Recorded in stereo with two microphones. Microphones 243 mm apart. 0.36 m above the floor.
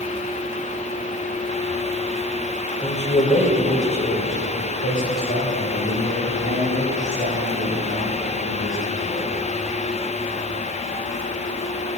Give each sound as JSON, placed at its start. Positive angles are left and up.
{"t": 2.8, "sound": "a man speaking", "side_deg": 25, "distance_m": 1.6}